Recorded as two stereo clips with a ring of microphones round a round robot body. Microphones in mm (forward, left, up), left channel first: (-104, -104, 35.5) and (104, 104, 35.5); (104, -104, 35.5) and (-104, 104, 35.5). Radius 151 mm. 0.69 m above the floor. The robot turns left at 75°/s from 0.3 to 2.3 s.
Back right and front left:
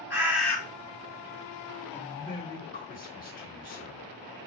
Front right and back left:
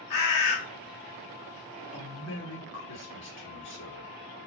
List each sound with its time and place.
0.1 s a bird: 35° right, 1.3 m; by 0.6 s 55° right, 1.3 m
1.9 s a man speaking: 55° right, 1.6 m; by 4.1 s 80° right, 1.6 m